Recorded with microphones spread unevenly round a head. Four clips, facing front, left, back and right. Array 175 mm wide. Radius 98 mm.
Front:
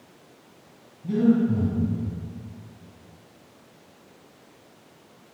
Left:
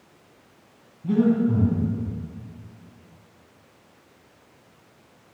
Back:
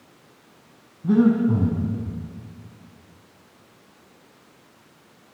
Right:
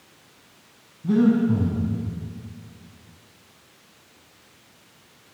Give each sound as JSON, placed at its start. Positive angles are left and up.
{"t": 1.0, "sound": "breathing", "azimuth_deg": -165, "distance_m": 6.0}